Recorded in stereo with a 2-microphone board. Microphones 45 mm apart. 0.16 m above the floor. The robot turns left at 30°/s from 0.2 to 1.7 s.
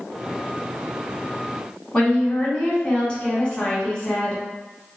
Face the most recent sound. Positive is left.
turn(degrees=20)  # may be behind; listen again after turning